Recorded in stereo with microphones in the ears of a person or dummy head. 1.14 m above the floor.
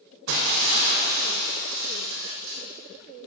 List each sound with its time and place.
0.3 s breaking glass: 65° right (ahead or behind), 3 m